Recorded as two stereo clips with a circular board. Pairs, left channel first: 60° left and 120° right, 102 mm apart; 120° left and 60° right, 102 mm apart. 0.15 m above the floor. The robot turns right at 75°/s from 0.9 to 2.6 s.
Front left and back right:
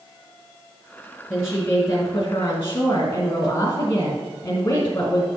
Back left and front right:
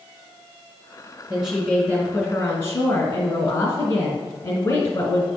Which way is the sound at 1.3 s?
5° left.